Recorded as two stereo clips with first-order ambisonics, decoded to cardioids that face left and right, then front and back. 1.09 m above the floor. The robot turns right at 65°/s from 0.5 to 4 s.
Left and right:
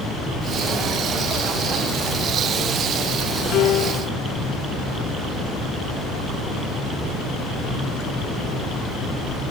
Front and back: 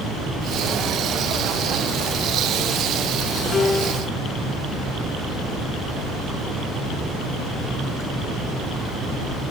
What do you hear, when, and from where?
3.5 s a piano: 60° left; by 4.1 s 95° left